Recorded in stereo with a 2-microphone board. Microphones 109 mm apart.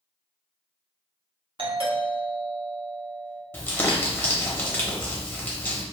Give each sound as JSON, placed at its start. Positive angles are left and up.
{"t": 1.6, "sound": "a doorbell", "side_deg": -55, "distance_m": 0.8}
{"t": 3.5, "sound": "crumpling", "side_deg": 20, "distance_m": 0.8}